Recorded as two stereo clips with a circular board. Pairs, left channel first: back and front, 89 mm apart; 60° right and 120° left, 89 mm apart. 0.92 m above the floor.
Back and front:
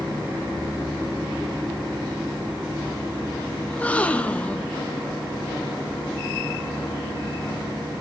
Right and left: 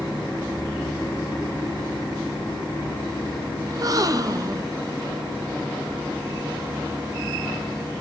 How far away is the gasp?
About 1.0 m.